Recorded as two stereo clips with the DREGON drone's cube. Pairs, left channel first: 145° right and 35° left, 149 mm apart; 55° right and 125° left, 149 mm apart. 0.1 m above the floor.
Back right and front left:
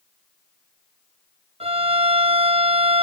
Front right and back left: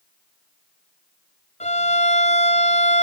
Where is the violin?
15° right, 1.2 m.